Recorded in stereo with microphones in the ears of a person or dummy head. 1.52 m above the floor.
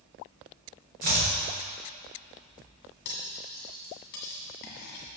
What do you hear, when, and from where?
1.0 s chopping: 50° right (ahead or behind), 1.1 m
3.0 s cutlery clinking: 55° left (ahead or behind), 1.6 m